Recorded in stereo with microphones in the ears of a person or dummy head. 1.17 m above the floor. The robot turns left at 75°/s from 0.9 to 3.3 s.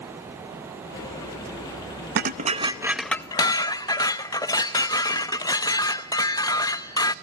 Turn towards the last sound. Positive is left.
turn(degrees=160)